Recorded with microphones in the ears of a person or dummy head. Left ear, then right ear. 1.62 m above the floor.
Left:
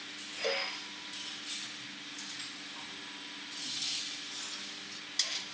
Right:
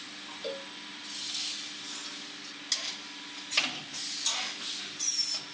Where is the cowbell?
30° left (ahead or behind).